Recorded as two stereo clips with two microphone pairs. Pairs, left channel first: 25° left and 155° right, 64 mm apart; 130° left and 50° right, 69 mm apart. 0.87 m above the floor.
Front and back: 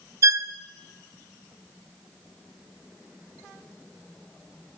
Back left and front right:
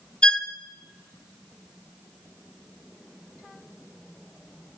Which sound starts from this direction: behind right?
A violin, at 0.2 s.